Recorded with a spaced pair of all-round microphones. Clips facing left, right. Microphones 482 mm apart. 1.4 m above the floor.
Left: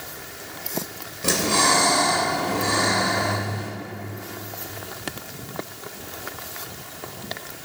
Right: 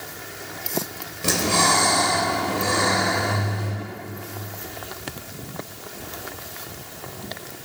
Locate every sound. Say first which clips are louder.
1.2 s breathing: even; centre (ahead or behind), 3 m